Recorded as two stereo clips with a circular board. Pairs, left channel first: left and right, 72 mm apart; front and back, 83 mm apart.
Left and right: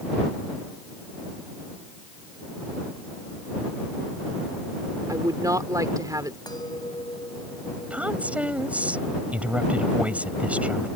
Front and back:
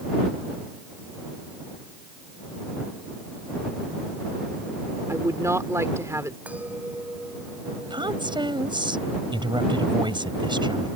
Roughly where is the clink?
Left.